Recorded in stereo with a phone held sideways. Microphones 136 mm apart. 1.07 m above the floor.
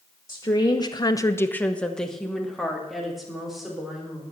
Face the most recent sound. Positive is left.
turn(degrees=-5)  # may be behind; listen again after turning